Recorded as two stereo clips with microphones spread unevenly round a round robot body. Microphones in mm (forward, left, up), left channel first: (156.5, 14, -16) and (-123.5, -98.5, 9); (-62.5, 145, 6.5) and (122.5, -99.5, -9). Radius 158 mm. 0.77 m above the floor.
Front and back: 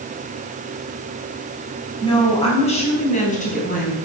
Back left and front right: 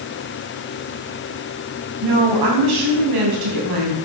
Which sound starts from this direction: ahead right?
A woman speaking, at 2.0 s.